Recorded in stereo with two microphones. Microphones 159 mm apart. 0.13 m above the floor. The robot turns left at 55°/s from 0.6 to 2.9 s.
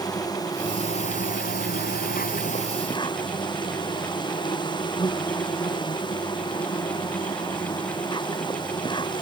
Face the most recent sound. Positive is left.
turn(degrees=30)